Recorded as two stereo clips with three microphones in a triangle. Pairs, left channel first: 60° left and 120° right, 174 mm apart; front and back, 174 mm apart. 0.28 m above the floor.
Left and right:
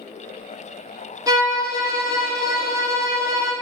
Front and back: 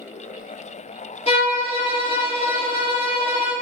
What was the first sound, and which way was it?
A violin, 50° right.